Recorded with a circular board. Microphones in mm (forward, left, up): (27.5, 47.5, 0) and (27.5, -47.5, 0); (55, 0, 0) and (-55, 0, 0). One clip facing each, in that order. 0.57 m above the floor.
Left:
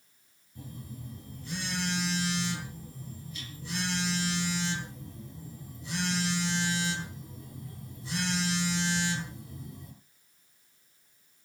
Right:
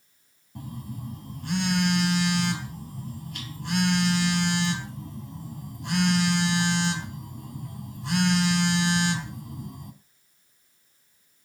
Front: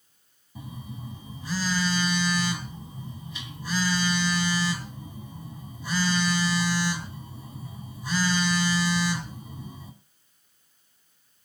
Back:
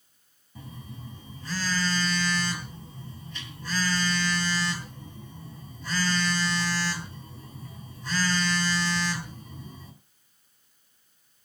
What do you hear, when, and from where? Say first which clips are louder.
0.6 s a phone buzzing: right 6 dB, front 3 dB; 80° right, 3 m